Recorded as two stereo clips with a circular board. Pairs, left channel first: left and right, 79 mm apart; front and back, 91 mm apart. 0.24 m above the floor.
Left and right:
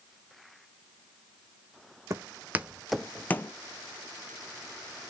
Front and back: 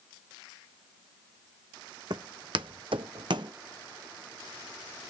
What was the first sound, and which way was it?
Footsteps, 140° right.